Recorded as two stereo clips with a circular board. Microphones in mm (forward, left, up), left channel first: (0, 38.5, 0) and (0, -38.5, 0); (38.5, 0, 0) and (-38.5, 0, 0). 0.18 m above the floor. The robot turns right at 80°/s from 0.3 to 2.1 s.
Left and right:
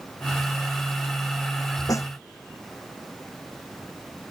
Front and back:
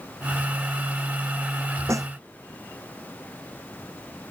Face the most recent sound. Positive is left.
turn(degrees=145)